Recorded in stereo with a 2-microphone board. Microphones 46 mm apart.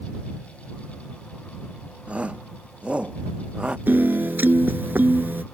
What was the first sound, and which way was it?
A shout, 30° right (ahead or behind).